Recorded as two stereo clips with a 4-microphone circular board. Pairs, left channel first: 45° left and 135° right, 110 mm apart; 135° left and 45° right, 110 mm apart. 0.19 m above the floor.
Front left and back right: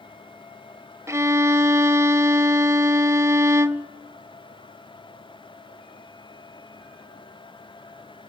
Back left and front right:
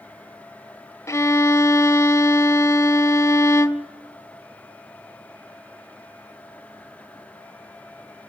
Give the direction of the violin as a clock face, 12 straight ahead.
6 o'clock.